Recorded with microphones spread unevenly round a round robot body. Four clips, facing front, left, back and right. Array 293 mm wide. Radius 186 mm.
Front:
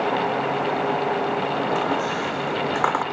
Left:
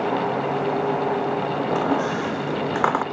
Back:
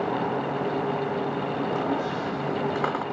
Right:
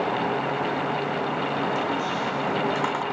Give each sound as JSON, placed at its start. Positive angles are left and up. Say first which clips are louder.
{"t": 1.7, "sound": "a squeak", "louder": "left 4 dB, front 3 dB", "azimuth_deg": 60, "distance_m": 0.7}